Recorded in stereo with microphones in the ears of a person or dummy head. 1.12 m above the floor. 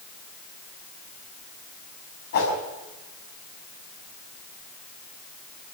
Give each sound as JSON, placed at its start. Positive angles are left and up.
{"t": 2.3, "sound": "a whoosh", "side_deg": 50, "distance_m": 6.5}